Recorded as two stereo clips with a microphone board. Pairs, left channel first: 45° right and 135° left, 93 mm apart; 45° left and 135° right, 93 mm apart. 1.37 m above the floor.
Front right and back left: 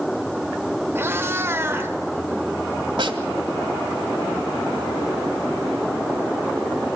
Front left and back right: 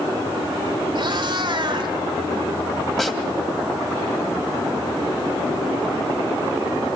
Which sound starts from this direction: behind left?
A snare drum, at 3.0 s.